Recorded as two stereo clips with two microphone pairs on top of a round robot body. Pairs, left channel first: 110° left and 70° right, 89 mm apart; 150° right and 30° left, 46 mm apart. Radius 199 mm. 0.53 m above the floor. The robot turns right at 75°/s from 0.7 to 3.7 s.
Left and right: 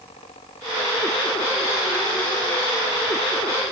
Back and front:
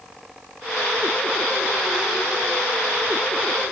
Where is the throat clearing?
I don't hear throat clearing.